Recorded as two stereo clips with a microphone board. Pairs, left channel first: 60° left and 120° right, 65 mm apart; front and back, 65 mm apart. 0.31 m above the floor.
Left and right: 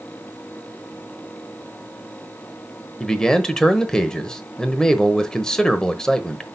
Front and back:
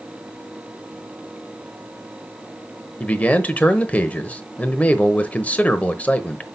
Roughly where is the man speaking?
Ahead.